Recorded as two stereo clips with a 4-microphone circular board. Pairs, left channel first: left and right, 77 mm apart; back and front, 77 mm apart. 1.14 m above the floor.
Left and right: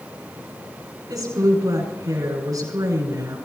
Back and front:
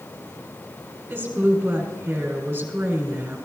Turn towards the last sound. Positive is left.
turn(degrees=-60)